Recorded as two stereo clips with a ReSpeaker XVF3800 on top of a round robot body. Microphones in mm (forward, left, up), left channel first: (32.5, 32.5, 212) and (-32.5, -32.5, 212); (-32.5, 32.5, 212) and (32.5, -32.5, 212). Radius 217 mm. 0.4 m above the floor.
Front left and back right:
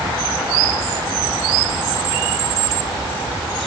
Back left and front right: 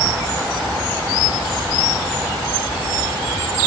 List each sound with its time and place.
Only background noise.